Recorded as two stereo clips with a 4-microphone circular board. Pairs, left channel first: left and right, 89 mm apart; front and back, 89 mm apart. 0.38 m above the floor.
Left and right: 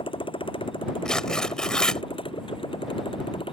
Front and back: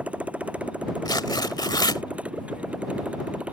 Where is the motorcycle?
105° left.